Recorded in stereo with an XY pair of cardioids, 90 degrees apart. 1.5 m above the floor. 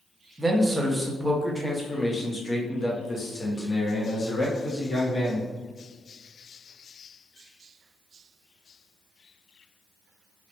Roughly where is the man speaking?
Ahead right.